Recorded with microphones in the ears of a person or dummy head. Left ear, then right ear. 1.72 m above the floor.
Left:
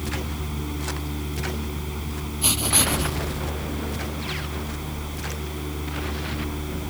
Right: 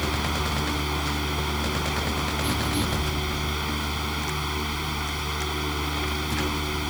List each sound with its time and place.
0.0 s a fan: 50° right (ahead or behind)
2.4 s writing: 60° left (ahead or behind)